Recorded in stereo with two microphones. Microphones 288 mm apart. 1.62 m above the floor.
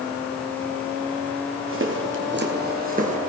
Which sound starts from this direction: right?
Footsteps, at 1.7 s.